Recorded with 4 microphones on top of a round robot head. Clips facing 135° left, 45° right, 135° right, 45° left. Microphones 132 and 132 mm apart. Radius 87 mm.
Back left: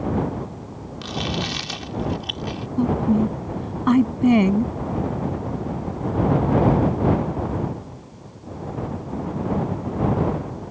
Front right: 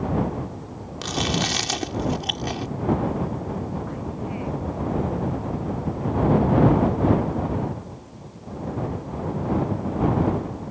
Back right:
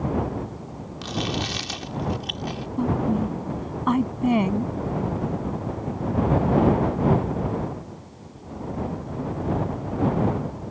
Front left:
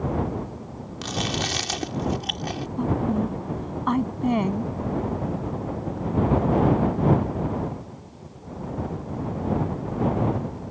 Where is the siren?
I don't hear a siren.